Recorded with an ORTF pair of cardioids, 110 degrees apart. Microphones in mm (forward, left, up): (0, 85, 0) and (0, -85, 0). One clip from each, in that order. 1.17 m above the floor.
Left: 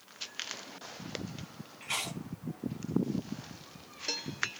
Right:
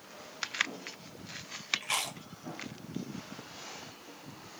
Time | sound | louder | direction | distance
1.8 | chewing | right 2 dB | 35° right | 1.0 m